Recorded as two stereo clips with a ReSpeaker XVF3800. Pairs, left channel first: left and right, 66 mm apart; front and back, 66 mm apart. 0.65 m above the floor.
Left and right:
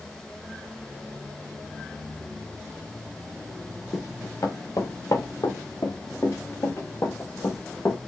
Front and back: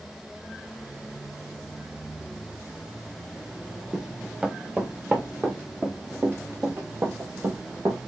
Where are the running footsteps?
100° left, 3.5 m; by 8.0 s 150° left, 3.5 m.